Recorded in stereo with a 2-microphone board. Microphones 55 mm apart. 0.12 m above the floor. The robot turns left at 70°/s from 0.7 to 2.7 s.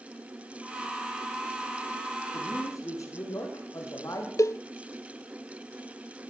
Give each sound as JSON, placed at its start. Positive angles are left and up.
{"t": 2.3, "sound": "a man speaking", "side_deg": 55, "distance_m": 8.0}
{"t": 4.4, "sound": "a cowbell", "side_deg": 70, "distance_m": 0.6}